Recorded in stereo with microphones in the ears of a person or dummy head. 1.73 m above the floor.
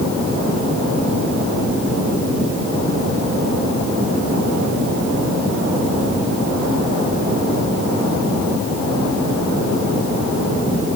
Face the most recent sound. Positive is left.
No sound to turn to.